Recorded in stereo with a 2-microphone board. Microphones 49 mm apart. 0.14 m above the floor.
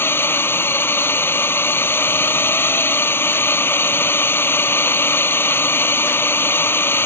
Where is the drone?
50° left (ahead or behind).